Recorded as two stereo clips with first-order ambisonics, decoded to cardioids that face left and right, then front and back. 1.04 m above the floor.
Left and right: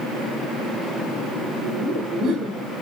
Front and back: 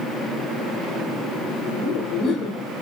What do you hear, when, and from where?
1.6 s laughter: 40° right, 3.5 m; by 2.6 s 50° right, 2.5 m